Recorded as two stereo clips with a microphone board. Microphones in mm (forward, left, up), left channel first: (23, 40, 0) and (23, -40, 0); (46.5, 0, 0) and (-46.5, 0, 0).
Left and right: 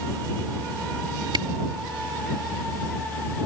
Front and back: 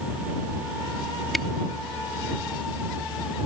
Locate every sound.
1.3 s a camera shutter: 90° right